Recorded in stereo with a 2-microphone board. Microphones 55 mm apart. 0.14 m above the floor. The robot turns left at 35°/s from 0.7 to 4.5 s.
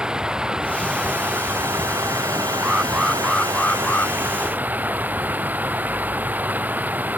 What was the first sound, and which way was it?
Running water, 20° right.